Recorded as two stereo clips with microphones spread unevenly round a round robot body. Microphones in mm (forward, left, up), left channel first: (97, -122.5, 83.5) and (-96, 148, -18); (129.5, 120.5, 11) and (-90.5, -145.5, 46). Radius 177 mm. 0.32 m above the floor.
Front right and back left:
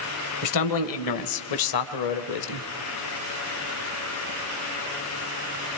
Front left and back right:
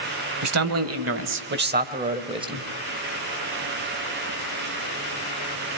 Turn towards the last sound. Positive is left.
turn(degrees=-45)